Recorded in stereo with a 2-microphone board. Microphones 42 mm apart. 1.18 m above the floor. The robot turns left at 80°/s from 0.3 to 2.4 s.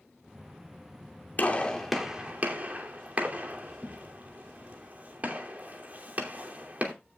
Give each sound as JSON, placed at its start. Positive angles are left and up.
{"t": 1.4, "sound": "a gunshot", "side_deg": 45, "distance_m": 2.5}